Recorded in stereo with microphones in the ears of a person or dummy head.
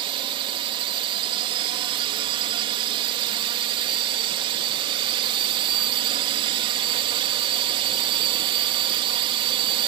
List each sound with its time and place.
0.0 s a drone: 35° right (ahead or behind)